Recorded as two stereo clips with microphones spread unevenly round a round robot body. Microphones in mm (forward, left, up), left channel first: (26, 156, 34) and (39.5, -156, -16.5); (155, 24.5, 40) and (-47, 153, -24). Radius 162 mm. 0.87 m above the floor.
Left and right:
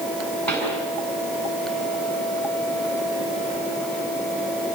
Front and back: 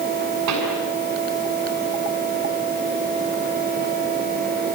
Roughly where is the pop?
Behind.